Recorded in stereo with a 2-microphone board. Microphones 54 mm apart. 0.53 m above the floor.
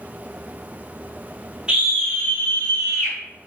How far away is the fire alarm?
I don't hear a fire alarm.